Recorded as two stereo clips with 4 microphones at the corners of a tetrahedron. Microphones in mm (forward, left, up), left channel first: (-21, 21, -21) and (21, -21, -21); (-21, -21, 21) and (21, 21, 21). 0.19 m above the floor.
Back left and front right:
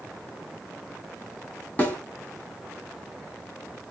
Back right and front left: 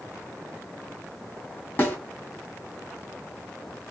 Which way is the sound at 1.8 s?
Straight behind.